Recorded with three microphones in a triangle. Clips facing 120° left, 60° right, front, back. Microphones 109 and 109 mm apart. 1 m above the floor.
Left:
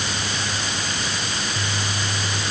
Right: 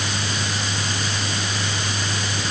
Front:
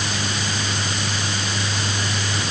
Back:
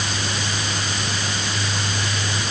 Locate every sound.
Only background noise.